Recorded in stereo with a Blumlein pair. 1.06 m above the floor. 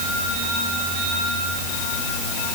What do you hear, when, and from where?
Only background noise.